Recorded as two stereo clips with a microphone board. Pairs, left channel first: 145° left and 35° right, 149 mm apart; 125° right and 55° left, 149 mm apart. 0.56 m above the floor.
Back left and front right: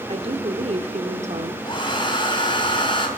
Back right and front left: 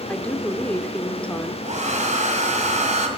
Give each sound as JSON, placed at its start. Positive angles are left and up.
{"t": 0.1, "sound": "a woman speaking", "azimuth_deg": -45, "distance_m": 1.3}
{"t": 1.6, "sound": "a hair dryer", "azimuth_deg": 90, "distance_m": 2.5}